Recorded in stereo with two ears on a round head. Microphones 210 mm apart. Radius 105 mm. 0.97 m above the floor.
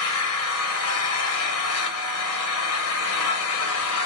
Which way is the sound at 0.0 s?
65° left (ahead or behind).